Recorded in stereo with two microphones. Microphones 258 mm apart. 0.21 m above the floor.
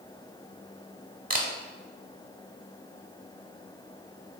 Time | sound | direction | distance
1.3 | a camera shutter | 35° right (ahead or behind) | 0.6 m